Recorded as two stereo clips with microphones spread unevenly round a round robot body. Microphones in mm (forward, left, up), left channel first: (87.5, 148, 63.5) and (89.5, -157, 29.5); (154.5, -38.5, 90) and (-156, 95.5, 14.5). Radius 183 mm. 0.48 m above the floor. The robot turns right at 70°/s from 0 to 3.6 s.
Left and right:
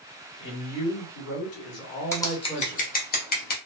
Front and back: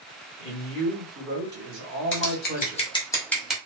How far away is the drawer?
I don't hear a drawer.